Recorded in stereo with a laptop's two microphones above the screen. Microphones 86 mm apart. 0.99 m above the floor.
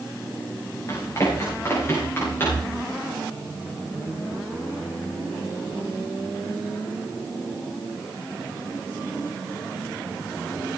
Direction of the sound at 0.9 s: 35° left (ahead or behind).